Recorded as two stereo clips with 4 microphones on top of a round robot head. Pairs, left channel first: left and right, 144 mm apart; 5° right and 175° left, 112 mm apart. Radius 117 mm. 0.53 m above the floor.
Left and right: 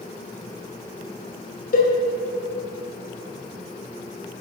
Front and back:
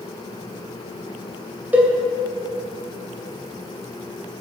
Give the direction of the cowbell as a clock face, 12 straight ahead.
9 o'clock.